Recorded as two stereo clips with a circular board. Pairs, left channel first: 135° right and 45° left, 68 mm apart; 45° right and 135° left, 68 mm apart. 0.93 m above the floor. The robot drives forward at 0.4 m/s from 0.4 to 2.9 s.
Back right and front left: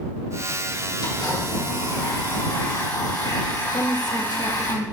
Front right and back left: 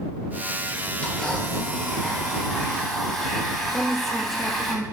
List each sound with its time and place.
1.0 s a blender: 125° right, 4 m; by 4.7 s 130° right, 4.5 m
3.7 s a woman speaking: 130° right, 1.4 m